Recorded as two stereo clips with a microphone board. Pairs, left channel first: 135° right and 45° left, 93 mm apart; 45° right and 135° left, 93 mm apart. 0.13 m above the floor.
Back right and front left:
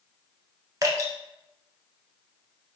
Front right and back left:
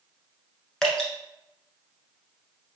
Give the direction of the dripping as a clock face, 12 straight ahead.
11 o'clock.